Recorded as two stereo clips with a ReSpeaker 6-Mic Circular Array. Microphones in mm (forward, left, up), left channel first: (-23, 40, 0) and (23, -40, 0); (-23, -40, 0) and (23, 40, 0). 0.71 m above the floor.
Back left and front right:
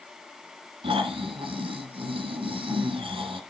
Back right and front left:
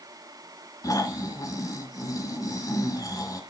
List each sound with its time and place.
0.8 s snoring: 70° right, 1.7 m